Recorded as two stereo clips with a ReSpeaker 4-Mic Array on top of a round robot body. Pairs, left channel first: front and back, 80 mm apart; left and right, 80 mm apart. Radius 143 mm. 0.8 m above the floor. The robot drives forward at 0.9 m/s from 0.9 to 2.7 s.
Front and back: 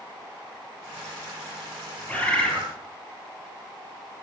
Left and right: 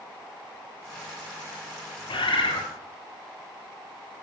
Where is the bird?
70° left, 4 m; by 2.7 s 80° left, 4 m.